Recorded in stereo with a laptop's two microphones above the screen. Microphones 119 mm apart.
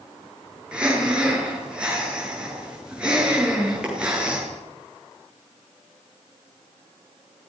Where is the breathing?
10° right (ahead or behind), 8.5 m.